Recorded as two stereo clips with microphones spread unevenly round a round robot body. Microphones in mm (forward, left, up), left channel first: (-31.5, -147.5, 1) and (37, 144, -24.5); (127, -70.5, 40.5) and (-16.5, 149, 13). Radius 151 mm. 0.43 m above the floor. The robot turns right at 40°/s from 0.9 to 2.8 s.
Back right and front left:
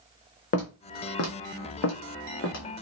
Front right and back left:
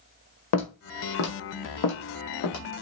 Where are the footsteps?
50° right, 1.0 m; by 2.6 s 55° right, 1.2 m.